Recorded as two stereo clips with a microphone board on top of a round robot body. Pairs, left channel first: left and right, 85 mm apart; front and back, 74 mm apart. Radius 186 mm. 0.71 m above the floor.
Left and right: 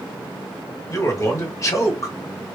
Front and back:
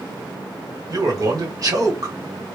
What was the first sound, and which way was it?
A man speaking, 145° left.